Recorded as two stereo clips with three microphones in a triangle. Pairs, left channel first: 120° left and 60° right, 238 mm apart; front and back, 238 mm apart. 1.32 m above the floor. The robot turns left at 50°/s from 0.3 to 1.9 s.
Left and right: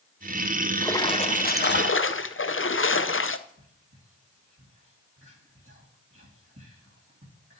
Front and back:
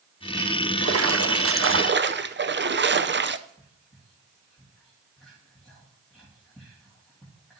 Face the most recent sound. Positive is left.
turn(degrees=-90)